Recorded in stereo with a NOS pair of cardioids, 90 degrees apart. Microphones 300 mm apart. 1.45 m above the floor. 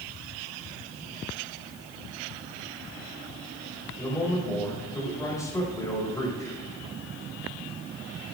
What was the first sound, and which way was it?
A man speaking, 10° left.